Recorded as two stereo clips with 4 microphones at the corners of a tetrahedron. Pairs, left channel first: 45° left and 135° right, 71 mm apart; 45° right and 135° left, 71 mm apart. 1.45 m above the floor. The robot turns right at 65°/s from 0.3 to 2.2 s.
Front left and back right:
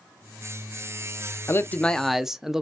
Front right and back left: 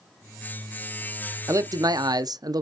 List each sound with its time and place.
1.5 s a man speaking: 95° left, 0.5 m; by 2.6 s 140° left, 0.5 m